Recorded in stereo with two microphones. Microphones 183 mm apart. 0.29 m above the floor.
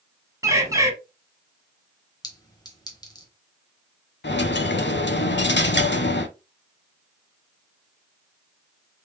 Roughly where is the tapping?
No tapping in this recording.